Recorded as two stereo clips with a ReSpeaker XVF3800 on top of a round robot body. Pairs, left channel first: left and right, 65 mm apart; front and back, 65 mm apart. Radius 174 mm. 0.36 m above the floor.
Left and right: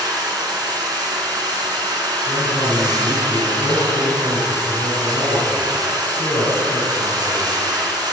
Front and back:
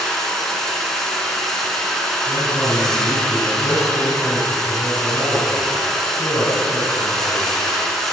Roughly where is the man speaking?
Ahead left.